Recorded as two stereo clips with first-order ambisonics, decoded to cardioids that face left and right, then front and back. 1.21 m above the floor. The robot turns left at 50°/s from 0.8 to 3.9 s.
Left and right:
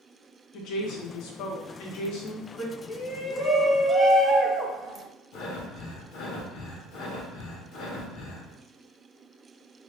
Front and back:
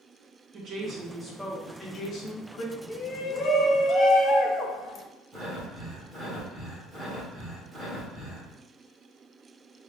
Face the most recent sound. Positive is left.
turn(degrees=90)